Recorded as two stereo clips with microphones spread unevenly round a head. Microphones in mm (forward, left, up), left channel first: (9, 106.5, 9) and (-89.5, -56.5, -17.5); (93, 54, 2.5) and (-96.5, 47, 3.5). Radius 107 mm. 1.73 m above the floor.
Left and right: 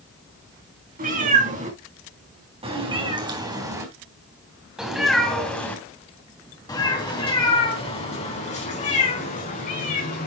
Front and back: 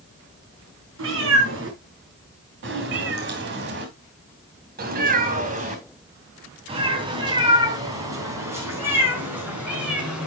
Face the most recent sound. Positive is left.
turn(degrees=95)